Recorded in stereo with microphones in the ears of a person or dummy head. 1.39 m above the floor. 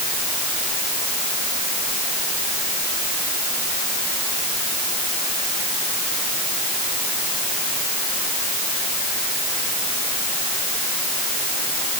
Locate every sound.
Only background noise.